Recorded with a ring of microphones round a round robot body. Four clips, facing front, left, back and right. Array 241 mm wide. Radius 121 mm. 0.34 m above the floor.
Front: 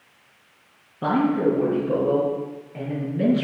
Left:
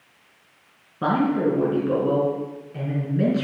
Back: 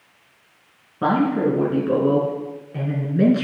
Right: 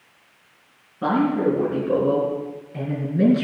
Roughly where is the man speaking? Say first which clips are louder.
Right 1 dB, back 1 dB; behind left.